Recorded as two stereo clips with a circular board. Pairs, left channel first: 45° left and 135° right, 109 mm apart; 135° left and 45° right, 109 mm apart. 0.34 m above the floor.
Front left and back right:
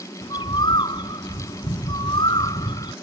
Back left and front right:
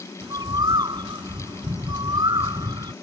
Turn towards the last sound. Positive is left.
turn(degrees=5)